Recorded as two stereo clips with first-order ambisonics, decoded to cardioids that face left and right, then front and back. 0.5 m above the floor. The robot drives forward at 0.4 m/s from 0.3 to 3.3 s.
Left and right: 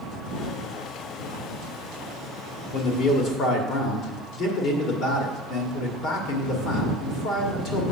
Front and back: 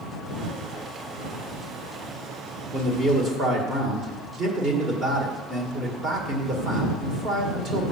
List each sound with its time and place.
2.7 s a man speaking: 115° left, 1.5 m; by 7.9 s 125° left, 1.6 m